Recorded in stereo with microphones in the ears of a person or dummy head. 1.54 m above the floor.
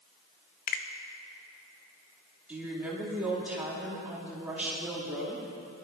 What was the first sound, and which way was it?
A finger snap, 45° left (ahead or behind).